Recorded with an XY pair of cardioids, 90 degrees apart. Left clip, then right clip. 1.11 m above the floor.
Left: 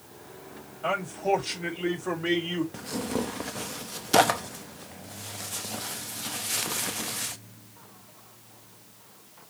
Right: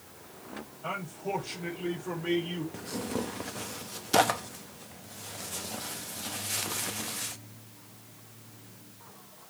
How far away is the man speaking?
About 4.5 m.